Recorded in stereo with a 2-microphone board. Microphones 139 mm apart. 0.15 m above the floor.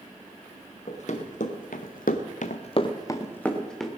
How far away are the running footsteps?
About 3 m.